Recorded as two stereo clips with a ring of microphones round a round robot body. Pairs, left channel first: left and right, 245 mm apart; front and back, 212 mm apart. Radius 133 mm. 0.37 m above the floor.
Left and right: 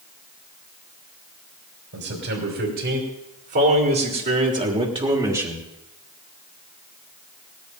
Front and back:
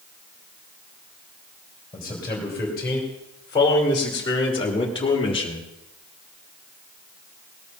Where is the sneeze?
No sneeze in this recording.